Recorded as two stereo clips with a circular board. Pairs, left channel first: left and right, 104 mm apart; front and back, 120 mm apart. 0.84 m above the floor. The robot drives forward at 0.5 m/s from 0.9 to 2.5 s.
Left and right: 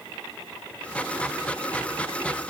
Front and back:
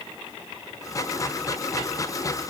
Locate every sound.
Only background noise.